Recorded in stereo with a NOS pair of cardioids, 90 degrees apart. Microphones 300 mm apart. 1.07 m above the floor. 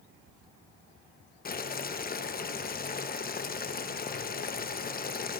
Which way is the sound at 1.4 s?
30° left.